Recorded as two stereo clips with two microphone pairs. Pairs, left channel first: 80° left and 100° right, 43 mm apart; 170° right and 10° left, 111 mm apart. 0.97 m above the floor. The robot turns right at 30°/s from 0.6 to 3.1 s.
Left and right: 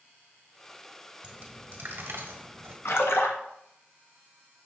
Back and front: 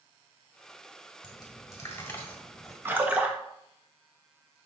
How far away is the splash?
About 0.8 m.